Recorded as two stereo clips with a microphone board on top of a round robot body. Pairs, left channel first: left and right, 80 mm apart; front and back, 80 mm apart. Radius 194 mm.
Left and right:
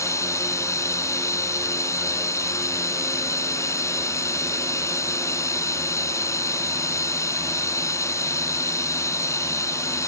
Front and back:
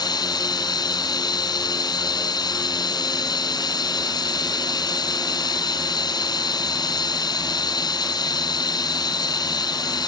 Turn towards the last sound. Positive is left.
turn(degrees=35)